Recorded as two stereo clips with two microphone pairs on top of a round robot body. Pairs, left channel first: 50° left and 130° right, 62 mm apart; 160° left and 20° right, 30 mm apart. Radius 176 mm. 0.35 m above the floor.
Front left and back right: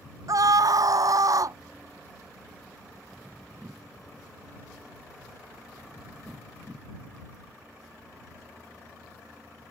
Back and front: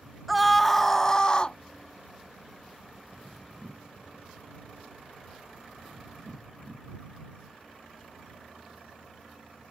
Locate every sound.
0.3 s a scream: 110° right; by 1.6 s 150° right